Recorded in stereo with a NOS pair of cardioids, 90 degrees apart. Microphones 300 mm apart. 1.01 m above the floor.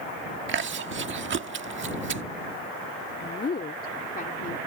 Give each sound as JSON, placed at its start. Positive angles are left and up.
{"t": 0.5, "sound": "chewing", "azimuth_deg": -40}
{"t": 3.2, "sound": "a woman speaking", "azimuth_deg": 30}